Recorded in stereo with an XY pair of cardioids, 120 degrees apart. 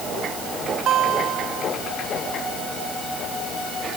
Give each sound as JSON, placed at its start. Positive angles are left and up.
{"t": 0.9, "sound": "a guitar", "azimuth_deg": -60}